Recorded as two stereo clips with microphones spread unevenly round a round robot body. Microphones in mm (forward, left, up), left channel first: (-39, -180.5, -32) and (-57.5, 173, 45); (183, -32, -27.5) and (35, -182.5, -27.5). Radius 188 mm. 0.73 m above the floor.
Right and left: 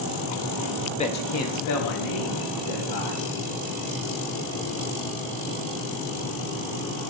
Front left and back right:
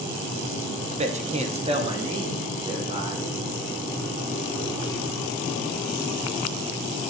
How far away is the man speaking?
About 0.5 m.